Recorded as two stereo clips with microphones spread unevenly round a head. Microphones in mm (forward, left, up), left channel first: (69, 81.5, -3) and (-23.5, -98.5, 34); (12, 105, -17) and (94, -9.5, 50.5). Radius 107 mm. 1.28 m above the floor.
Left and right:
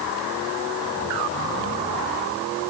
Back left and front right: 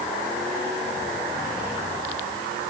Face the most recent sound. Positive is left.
No sound to turn to.